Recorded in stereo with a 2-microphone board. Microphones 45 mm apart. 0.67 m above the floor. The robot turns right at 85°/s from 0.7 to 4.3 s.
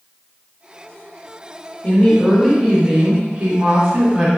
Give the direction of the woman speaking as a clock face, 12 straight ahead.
8 o'clock.